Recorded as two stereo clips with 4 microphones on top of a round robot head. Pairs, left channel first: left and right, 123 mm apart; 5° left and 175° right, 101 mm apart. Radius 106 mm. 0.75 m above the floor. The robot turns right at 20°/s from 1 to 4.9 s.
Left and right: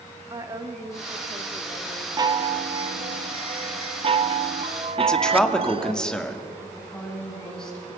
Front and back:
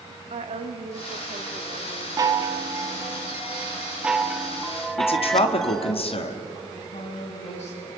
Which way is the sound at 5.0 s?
5° left.